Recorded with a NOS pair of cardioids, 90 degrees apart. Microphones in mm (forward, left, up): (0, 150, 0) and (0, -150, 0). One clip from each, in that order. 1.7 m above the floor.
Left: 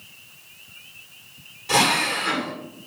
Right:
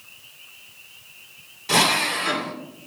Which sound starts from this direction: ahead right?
A drill, at 1.7 s.